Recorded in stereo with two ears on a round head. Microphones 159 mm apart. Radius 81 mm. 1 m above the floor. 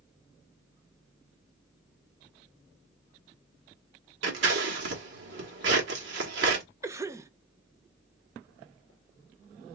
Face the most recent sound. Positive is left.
turn(degrees=-15)  # may be behind; listen again after turning